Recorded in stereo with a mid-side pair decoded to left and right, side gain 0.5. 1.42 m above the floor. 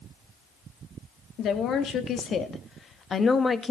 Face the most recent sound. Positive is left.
turn(degrees=20)